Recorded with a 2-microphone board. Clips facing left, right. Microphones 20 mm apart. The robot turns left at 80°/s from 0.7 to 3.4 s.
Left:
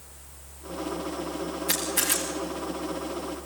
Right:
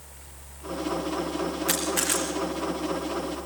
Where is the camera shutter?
65° right (ahead or behind), 6 m; by 2.2 s 20° right (ahead or behind), 6 m.